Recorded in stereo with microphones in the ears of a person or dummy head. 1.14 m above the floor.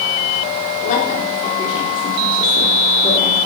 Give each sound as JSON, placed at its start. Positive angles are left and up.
{"t": 0.8, "sound": "a woman speaking", "side_deg": 45, "distance_m": 4.0}